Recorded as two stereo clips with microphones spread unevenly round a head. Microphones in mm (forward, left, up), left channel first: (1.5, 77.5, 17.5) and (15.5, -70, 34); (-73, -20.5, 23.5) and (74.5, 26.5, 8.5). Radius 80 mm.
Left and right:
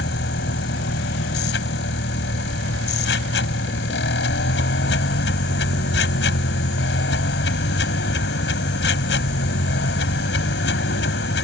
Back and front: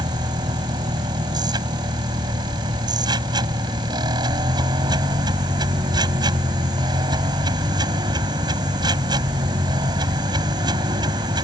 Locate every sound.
0.0 s a machine running: 85° left